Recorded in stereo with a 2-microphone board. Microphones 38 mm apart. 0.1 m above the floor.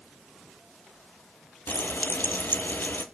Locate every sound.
1.7 s frying: 65° left (ahead or behind), 0.7 m